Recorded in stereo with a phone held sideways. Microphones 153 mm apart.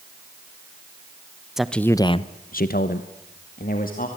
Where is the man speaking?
5° right (ahead or behind), 1.1 m; by 4.1 s 65° left (ahead or behind), 2.5 m.